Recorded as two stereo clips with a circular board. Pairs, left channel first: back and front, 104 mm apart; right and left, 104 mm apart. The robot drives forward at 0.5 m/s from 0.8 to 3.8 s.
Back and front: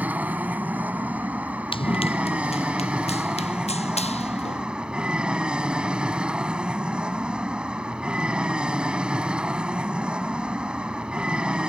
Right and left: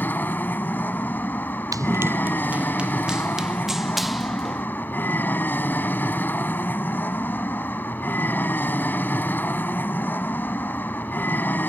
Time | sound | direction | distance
0.0 | an aircraft | 50° right | ?
1.7 | running footsteps | 145° left | ?